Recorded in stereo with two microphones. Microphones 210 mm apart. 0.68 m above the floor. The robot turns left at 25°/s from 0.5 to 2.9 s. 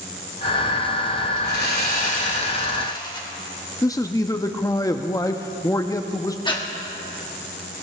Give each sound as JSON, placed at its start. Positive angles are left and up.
{"t": 1.4, "sound": "sawing", "azimuth_deg": 60, "distance_m": 2.0}
{"t": 3.8, "sound": "a man speaking", "side_deg": 15, "distance_m": 0.5}
{"t": 6.5, "sound": "breathing", "side_deg": 20, "distance_m": 1.4}